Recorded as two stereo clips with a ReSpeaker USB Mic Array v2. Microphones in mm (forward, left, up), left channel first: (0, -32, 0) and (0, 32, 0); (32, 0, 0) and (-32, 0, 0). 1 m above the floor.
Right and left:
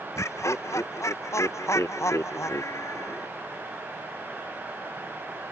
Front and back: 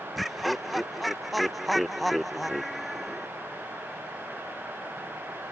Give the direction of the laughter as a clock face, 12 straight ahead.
3 o'clock.